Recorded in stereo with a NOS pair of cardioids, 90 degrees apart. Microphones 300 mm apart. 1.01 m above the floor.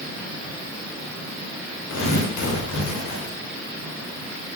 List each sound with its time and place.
1.9 s tearing paper: 65° left, 3 m